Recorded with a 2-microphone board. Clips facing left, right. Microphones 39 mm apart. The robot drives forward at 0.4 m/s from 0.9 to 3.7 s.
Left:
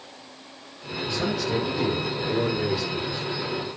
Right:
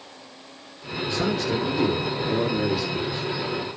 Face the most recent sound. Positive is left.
turn(degrees=-40)  # may be behind; listen again after turning